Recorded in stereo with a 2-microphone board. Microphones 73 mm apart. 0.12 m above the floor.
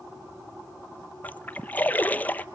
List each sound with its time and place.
1.2 s a splash: 25° left (ahead or behind), 0.7 m